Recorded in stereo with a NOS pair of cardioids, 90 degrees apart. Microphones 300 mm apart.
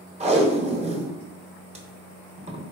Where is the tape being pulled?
25° right, 0.8 m.